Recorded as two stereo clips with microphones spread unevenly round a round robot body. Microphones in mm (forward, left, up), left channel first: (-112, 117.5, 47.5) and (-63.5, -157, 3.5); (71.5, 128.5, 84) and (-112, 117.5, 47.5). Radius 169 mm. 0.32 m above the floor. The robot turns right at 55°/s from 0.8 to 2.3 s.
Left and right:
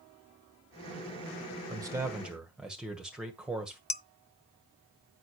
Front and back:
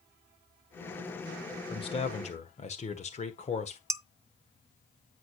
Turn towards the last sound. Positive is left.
turn(degrees=160)